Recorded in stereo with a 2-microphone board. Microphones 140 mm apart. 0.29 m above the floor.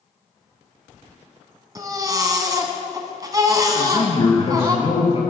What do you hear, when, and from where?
1.8 s a baby crying: 25° right (ahead or behind), 1.4 m
3.8 s a man speaking: 40° left (ahead or behind), 5 m